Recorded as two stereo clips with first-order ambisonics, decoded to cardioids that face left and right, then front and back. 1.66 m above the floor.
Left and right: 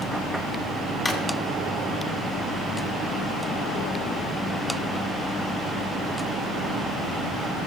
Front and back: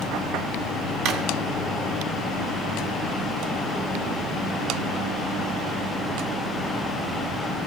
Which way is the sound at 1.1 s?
170° left.